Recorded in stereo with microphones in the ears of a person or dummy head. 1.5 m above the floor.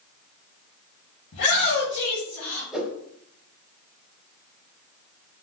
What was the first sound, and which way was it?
A shout, 50° left (ahead or behind).